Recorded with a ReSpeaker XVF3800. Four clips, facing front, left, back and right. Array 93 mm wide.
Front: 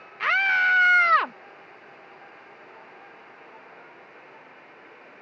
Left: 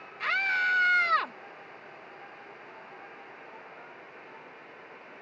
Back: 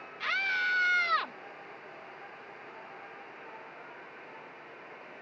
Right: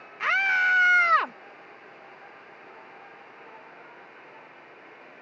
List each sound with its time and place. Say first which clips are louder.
0.2 s a scream: right 5 dB, front 10 dB; 30° right